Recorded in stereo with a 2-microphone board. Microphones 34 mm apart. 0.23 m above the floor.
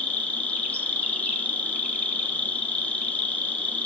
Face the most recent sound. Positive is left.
turn(degrees=45)  # may be behind; listen again after turning